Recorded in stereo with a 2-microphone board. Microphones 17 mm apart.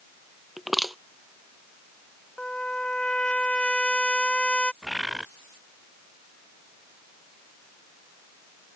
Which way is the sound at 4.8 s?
10° right (ahead or behind).